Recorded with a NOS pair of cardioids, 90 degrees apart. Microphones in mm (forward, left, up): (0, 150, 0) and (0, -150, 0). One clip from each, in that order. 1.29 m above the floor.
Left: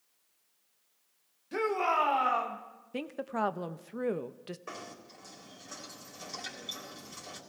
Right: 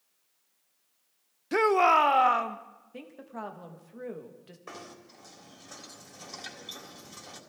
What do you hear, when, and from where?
1.5 s a shout: 60° right, 1.0 m; by 2.6 s 40° right, 1.5 m
2.9 s a woman speaking: 50° left, 1.0 m
4.7 s knocking: 5° right, 3.5 m